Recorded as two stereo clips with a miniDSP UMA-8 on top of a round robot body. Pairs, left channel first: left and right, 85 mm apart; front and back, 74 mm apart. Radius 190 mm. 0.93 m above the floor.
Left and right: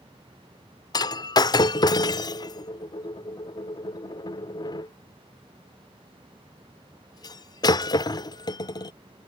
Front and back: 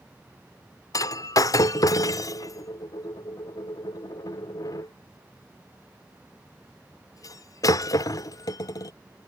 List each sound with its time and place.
0.9 s breaking glass: 45° left